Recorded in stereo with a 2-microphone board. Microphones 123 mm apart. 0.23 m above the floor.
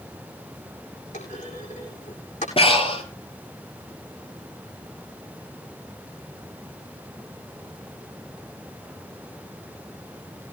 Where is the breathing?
50° left (ahead or behind), 3 m.